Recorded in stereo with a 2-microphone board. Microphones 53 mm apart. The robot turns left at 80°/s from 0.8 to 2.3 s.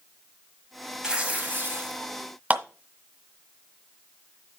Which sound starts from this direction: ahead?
Tearing paper, at 1.0 s.